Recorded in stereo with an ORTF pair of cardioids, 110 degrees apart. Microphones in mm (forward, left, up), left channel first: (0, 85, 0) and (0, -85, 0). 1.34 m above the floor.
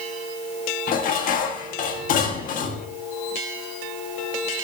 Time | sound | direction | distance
0.9 | dishes clattering | 55° left | 1.7 m